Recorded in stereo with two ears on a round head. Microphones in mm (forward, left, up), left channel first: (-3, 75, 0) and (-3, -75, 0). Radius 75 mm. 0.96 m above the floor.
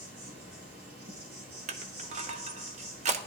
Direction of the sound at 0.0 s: 60° right (ahead or behind).